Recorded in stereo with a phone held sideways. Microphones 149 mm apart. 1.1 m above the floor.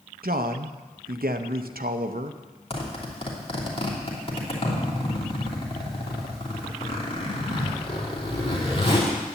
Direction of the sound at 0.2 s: 80° right.